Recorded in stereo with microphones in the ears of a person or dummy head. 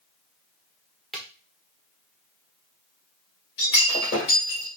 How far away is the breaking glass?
About 2 m.